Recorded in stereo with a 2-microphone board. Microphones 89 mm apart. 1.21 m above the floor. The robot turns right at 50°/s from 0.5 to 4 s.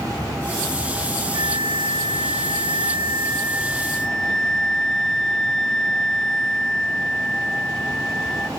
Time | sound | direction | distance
1.3 | a flute | 125° right | 0.7 m